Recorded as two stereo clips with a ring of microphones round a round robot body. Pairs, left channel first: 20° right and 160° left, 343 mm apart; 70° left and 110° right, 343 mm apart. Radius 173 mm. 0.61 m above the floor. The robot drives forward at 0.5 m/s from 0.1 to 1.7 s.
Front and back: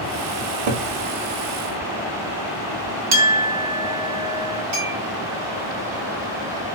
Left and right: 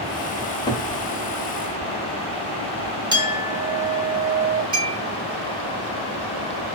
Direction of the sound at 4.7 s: 170° left.